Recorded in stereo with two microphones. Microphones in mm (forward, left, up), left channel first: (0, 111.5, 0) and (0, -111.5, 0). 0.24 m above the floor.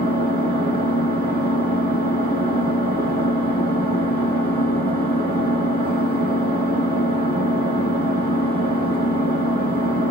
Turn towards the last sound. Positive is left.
turn(degrees=-45)  # may be behind; listen again after turning